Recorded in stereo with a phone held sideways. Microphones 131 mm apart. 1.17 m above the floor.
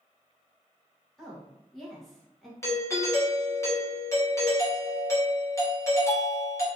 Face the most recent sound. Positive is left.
turn(degrees=20)  # may be behind; listen again after turning